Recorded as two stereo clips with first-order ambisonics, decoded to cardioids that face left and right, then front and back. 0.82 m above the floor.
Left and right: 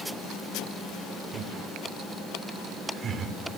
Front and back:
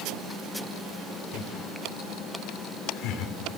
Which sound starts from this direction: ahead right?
Laughter, at 1.3 s.